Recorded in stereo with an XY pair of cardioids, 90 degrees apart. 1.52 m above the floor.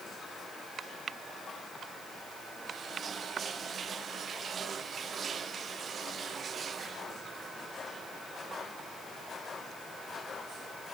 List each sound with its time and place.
Only background noise.